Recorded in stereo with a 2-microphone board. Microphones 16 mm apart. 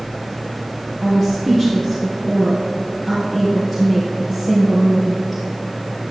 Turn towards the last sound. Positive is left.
turn(degrees=20)  # may be behind; listen again after turning